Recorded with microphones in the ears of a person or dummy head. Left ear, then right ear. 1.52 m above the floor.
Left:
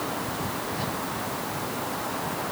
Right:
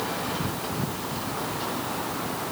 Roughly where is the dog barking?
No dog barking in this recording.